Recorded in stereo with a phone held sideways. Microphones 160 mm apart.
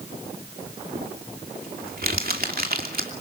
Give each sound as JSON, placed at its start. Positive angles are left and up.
{"t": 0.9, "sound": "crumpling", "side_deg": -70, "distance_m": 2.5}